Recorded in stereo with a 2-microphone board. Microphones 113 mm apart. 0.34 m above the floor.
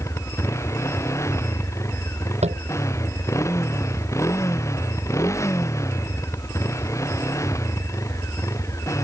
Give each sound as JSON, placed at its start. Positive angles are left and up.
{"t": 0.0, "sound": "a motorcycle", "side_deg": 25}
{"t": 2.4, "sound": "tapping", "side_deg": -75}